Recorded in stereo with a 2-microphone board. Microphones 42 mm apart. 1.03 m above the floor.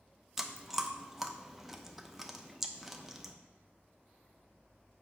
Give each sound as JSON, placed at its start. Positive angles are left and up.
{"t": 0.4, "sound": "chewing", "side_deg": -5, "distance_m": 0.5}